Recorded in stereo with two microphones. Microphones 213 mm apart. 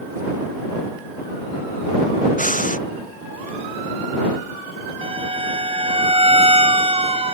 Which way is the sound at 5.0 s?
25° right (ahead or behind).